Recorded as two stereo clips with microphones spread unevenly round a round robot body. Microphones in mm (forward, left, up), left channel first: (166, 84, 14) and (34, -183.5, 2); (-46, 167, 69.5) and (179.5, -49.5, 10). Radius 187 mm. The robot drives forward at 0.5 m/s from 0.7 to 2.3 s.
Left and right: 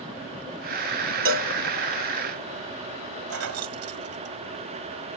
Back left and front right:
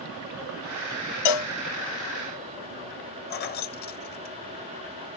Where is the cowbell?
175° right.